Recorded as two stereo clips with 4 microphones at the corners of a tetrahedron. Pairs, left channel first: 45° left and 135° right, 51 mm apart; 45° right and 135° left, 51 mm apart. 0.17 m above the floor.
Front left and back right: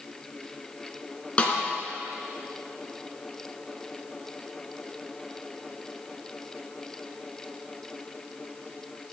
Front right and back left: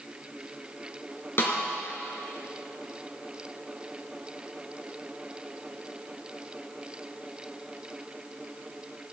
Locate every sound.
1.4 s a snare drum: 20° right, 3 m